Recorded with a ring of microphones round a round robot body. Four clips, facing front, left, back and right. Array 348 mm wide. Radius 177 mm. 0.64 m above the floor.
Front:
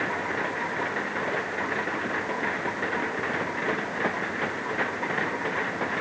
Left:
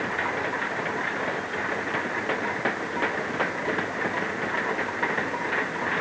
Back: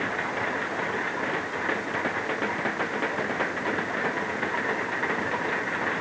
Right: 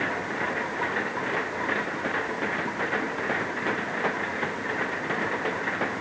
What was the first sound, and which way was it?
Only background noise.